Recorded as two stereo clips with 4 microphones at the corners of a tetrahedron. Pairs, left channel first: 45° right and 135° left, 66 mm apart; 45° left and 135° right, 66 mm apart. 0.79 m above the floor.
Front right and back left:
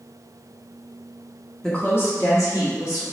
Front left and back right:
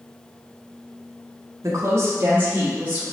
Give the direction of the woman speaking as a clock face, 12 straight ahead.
4 o'clock.